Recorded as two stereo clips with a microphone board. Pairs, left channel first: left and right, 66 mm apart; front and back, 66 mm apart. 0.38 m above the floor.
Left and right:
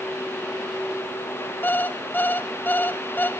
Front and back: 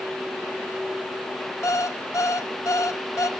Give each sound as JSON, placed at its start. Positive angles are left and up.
{"t": 1.6, "sound": "an alarm clock", "azimuth_deg": 30, "distance_m": 1.3}